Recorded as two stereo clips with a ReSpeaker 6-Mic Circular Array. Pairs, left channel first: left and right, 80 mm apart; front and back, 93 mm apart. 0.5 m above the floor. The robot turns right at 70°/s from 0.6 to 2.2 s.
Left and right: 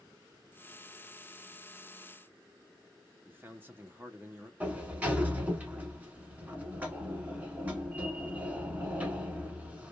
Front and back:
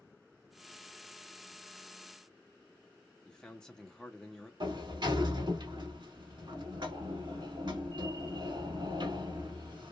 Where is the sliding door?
155° right, 0.8 m.